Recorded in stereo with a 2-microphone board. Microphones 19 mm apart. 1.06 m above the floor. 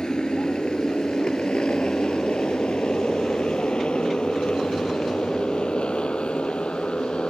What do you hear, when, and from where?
0.0 s a motorcycle: 45° left (ahead or behind); by 7.3 s 65° left (ahead or behind)